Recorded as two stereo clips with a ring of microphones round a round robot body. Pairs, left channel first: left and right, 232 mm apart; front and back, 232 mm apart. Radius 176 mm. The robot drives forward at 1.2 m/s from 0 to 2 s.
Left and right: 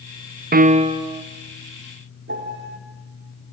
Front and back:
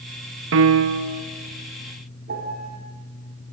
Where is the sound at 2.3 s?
125° right, 3.5 m.